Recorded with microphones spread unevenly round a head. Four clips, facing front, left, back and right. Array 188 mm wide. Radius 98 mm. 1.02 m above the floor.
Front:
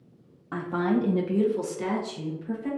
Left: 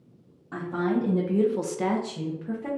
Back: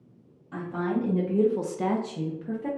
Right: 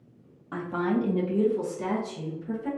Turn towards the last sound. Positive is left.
turn(degrees=150)